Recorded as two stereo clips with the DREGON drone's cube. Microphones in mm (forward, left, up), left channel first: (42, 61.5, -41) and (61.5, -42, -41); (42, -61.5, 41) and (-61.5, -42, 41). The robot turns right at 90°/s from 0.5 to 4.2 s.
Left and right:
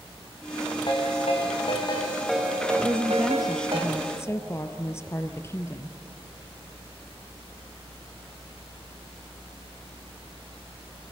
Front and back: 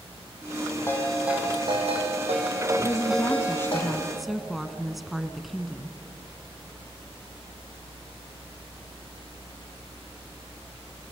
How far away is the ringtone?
About 4.5 m.